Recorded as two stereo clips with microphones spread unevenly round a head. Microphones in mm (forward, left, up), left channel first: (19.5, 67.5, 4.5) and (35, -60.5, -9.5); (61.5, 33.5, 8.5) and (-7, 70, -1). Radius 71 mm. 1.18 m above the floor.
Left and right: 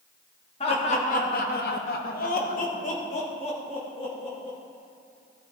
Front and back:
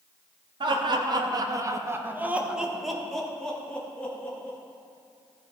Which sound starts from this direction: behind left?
Laughter, at 0.6 s.